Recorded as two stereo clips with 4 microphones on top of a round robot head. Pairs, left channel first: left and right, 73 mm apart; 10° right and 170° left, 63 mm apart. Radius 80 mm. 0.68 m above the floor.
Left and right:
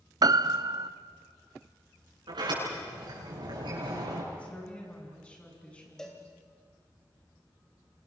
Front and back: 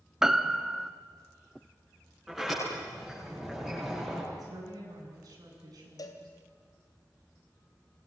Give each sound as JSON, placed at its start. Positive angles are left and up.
{"t": 0.2, "sound": "a piano", "azimuth_deg": -110, "distance_m": 1.0}
{"t": 2.3, "sound": "a sliding door", "azimuth_deg": -105, "distance_m": 9.5}
{"t": 4.3, "sound": "a woman speaking", "azimuth_deg": 160, "distance_m": 7.5}
{"t": 6.0, "sound": "a cowbell", "azimuth_deg": 5, "distance_m": 2.5}